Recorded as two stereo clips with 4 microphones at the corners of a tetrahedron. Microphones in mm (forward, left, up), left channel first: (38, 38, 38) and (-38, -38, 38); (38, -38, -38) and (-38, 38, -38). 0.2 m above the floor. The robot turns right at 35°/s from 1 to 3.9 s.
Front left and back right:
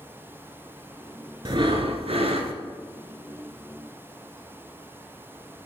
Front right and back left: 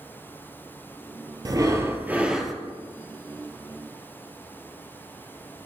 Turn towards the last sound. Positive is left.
turn(degrees=-90)